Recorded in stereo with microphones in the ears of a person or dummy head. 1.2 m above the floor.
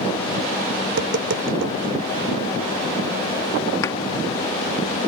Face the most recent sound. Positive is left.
turn(degrees=20)  # may be behind; listen again after turning